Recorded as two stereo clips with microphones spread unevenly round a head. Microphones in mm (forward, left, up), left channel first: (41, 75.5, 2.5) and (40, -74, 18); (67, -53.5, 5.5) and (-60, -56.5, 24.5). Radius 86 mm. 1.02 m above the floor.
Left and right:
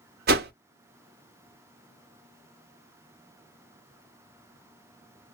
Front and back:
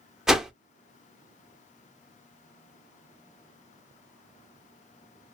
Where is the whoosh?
95° right, 0.6 m.